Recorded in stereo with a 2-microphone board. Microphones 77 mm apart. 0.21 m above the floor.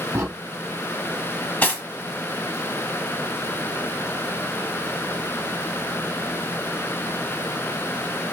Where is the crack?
40° right (ahead or behind), 1.8 m.